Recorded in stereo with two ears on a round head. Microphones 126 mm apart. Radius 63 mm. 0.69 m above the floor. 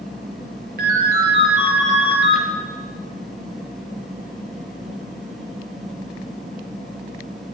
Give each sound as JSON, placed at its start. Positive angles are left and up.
{"t": 0.8, "sound": "a ringtone", "side_deg": -75, "distance_m": 5.0}